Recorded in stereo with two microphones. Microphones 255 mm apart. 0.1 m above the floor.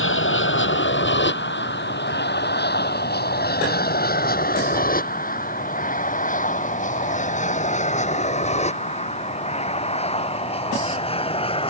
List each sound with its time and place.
0.0 s an aircraft: 50° left (ahead or behind); by 11.7 s 20° left (ahead or behind)